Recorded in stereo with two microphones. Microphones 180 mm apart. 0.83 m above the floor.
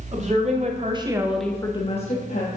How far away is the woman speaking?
About 2.0 m.